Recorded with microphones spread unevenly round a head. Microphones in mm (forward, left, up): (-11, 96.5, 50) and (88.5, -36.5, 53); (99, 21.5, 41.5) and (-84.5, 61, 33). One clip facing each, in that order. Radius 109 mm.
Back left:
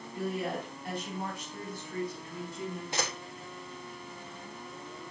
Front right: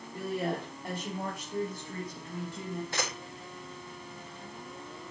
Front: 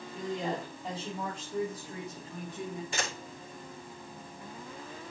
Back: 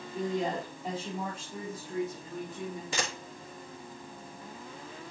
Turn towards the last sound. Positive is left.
turn(degrees=-160)